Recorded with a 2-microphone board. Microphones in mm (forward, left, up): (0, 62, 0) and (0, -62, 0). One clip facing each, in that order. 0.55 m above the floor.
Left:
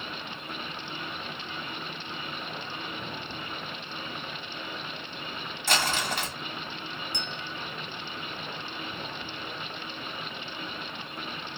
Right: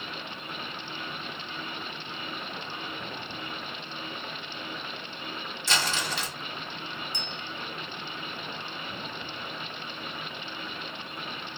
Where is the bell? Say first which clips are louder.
Left 1 dB; 70° left (ahead or behind), 1.5 m.